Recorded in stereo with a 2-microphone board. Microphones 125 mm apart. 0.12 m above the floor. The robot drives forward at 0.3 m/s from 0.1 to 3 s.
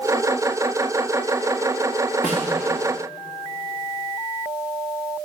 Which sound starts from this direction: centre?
A snare drum, at 2.2 s.